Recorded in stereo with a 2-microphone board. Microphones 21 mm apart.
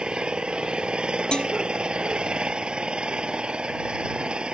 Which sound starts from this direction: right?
An engine running, at 0.0 s.